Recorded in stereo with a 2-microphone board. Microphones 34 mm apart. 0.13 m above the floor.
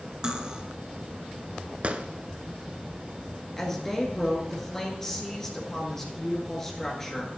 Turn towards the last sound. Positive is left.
turn(degrees=15)  # may be behind; listen again after turning